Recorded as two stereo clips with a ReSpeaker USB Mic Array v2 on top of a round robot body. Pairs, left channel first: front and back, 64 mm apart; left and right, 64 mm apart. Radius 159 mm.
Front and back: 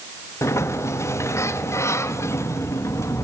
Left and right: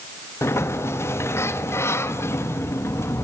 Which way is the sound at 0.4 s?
45° left.